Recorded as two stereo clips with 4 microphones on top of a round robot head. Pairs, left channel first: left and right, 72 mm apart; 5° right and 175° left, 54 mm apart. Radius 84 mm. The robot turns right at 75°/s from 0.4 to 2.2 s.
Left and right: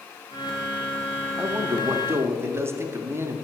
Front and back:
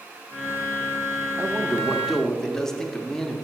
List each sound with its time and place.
1.4 s a man speaking: 140° right, 0.8 m; by 3.4 s 80° right, 0.8 m